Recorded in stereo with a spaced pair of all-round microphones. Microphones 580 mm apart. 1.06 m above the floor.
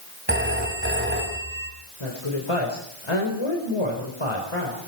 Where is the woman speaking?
60° left (ahead or behind), 4.5 m.